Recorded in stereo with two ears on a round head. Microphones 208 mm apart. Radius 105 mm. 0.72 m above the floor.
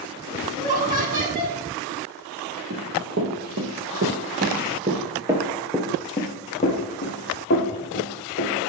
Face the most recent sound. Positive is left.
turn(degrees=50)  # may be behind; listen again after turning